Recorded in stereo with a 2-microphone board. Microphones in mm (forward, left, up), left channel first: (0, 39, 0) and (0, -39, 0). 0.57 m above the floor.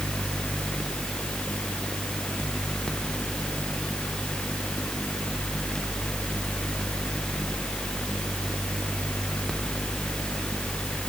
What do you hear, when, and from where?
Only background noise.